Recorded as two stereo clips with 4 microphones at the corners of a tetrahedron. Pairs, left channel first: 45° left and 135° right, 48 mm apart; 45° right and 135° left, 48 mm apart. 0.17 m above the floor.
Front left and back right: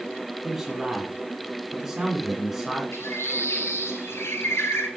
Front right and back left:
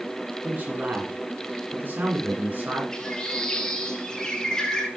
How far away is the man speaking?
About 2 m.